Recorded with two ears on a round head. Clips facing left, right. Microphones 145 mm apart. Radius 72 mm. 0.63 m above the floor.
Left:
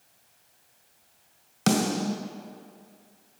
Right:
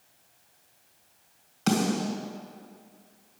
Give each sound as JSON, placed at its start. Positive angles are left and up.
{"t": 1.7, "sound": "a snare drum", "side_deg": 65, "distance_m": 2.0}